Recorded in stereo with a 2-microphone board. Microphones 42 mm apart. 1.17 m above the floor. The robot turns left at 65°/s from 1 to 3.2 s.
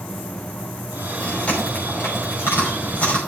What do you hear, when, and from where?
1.2 s chewing: 15° left (ahead or behind), 5.5 m; by 3.2 s 30° left (ahead or behind), 5.5 m